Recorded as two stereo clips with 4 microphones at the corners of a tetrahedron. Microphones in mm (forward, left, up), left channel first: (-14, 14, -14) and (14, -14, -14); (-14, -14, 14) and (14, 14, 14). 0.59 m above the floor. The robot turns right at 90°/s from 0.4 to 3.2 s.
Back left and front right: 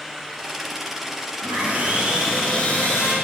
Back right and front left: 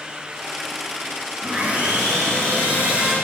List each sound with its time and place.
1.4 s sawing: 30° right, 8 m; by 3.1 s 125° left, 8 m